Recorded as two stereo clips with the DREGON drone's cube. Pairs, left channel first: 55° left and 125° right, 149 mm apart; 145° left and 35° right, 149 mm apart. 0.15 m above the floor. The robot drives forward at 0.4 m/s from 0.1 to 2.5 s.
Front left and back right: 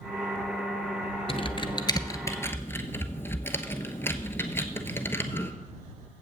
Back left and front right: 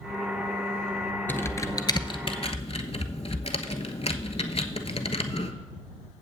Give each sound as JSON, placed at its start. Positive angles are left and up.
{"t": 1.3, "sound": "typing on a keyboard", "azimuth_deg": 75, "distance_m": 0.7}